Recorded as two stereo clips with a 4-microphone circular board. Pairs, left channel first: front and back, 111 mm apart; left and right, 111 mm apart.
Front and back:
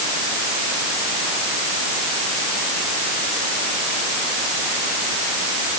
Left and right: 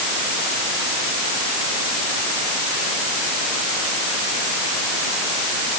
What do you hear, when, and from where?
Only background noise.